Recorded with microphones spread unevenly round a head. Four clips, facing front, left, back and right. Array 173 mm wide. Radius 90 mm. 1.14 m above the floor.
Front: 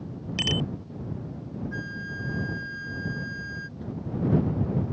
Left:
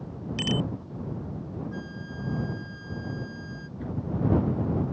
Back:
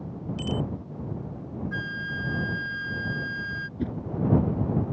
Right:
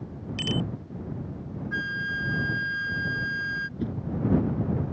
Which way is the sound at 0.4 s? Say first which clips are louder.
Left 1 dB, even; 10° left.